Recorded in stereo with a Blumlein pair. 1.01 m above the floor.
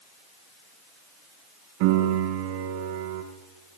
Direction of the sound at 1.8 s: 50° right.